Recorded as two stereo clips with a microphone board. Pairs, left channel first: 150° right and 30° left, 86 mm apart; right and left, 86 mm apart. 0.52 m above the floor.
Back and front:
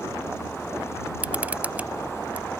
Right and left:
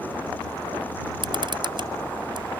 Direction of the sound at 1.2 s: 105° left.